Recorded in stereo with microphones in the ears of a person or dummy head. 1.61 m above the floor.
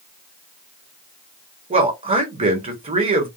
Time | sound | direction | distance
1.7 | a man speaking | 35° right (ahead or behind) | 1.0 m